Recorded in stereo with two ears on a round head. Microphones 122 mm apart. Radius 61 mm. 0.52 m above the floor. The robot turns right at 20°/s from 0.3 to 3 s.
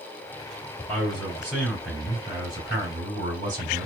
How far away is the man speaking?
About 3.5 m.